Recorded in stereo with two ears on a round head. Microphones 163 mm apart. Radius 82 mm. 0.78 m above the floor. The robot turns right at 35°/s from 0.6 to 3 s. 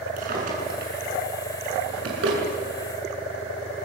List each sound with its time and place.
0.2 s a drawer: 50° right (ahead or behind), 6.5 m; by 2.4 s 65° right (ahead or behind), 6.5 m